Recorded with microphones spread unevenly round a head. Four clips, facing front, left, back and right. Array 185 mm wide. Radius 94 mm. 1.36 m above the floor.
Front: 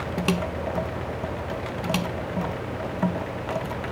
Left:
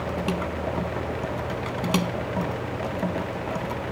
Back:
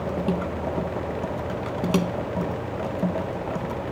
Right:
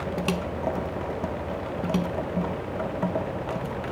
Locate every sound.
Only background noise.